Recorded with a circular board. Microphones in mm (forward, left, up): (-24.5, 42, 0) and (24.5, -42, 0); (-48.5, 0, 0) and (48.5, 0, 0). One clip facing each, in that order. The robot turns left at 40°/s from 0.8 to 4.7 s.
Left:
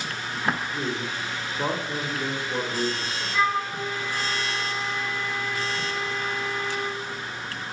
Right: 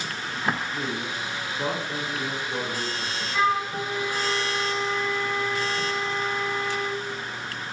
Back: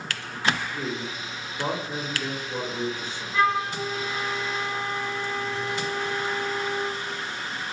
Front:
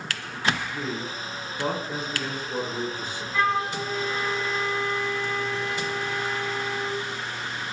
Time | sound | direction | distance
0.7 | a man speaking | 145° left | 0.8 m
3.3 | a flute | 100° right | 0.9 m